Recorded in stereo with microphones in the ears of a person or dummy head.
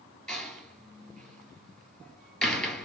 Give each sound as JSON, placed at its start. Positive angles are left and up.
{"t": 0.3, "sound": "a door slam", "side_deg": 0, "distance_m": 2.5}